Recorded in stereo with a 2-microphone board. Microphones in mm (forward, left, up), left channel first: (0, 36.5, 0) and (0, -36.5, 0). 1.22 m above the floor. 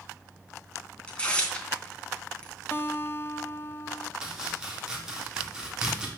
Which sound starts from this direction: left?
A guitar, at 2.7 s.